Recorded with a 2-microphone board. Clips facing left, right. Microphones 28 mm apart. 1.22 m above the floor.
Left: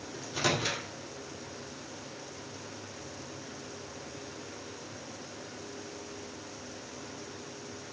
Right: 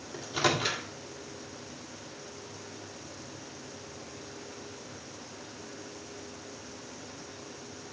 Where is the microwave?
20° right (ahead or behind), 2 m.